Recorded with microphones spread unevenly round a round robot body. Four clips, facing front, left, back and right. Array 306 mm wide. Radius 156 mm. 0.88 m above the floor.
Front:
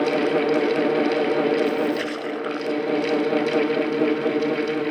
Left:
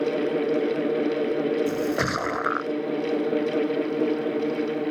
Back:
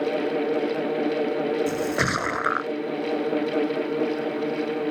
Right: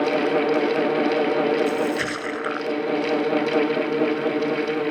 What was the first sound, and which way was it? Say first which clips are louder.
A splash: right 2 dB, front 2 dB; 155° left.